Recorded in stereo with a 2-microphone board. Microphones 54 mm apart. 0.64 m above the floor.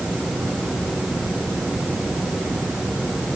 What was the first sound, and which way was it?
Only background noise.